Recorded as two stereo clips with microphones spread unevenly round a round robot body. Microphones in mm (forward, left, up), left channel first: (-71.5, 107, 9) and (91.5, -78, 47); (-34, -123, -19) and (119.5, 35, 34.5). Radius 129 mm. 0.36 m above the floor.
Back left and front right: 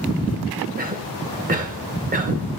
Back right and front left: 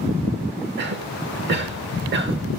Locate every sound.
0.8 s a cough: 10° left, 1.2 m